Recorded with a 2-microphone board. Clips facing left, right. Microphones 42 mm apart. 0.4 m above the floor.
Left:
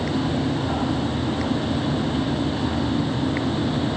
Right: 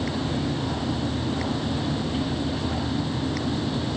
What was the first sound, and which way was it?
Only background noise.